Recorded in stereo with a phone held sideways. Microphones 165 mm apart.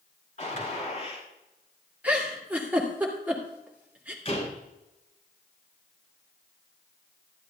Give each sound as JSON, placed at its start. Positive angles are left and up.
{"t": 0.4, "sound": "a gunshot", "side_deg": 50, "distance_m": 4.0}
{"t": 2.0, "sound": "a giggle", "side_deg": -10, "distance_m": 2.5}
{"t": 4.2, "sound": "a door slam", "side_deg": 40, "distance_m": 5.0}